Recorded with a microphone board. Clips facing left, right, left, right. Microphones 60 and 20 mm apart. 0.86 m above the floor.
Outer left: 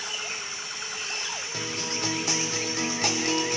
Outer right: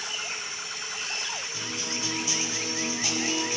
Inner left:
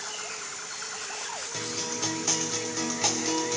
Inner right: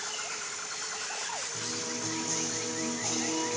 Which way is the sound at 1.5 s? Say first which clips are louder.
Outer left 2 dB, inner left 3 dB; 65° left (ahead or behind).